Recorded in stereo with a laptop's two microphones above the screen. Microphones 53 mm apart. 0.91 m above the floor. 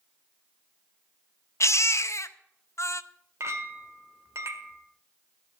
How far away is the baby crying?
About 0.5 m.